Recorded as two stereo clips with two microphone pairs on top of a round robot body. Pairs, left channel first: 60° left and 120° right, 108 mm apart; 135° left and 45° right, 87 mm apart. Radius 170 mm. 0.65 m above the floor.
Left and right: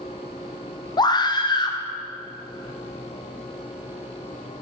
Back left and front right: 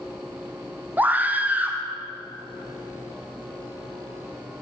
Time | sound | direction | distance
1.0 | a scream | 25° left | 1.5 m